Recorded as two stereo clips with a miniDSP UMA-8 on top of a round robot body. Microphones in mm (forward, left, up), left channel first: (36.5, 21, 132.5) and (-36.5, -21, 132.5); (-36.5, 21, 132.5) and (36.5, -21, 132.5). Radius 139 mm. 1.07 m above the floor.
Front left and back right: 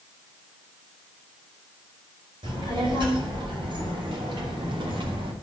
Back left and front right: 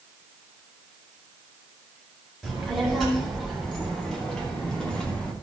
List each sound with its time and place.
2.4 s a child speaking: 125° right, 4.5 m; by 5.3 s 130° right, 2.5 m